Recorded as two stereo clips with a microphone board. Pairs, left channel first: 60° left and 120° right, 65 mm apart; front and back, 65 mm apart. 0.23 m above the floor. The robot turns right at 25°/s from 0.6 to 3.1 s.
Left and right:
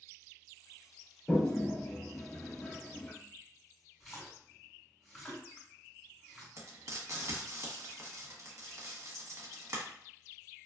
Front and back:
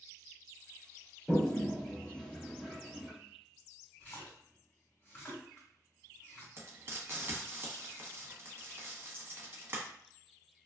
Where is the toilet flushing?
70° left, 0.5 m; by 3.1 s 115° left, 0.5 m.